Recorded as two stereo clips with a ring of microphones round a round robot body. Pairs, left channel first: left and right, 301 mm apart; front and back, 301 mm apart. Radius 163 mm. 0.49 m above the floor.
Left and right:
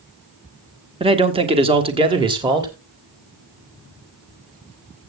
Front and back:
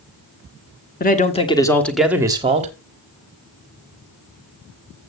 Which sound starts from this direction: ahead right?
A man speaking, at 1.0 s.